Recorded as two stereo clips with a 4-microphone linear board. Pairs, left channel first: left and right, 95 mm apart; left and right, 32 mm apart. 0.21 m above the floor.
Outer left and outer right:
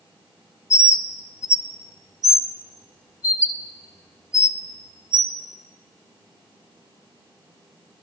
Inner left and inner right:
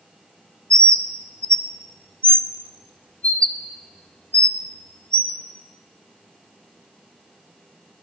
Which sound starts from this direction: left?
A bird, at 0.7 s.